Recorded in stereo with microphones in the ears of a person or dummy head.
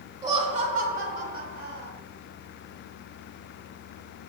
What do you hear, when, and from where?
0.2 s laughter: 20° right (ahead or behind), 0.8 m; by 1.9 s 60° right (ahead or behind), 2 m